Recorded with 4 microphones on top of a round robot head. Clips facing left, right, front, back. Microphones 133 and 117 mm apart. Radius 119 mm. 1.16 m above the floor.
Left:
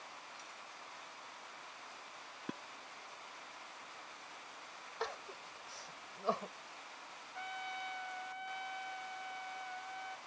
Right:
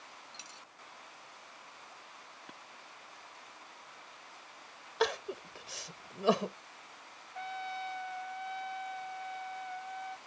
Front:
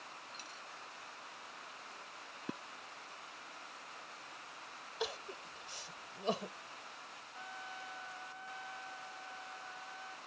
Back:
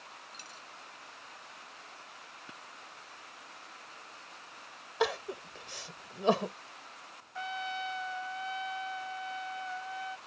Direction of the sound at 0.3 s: 120° right.